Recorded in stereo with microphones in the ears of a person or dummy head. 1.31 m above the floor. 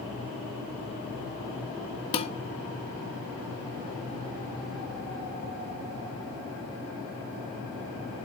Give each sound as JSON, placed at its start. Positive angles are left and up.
{"t": 2.1, "sound": "dishes clattering", "side_deg": 30, "distance_m": 1.3}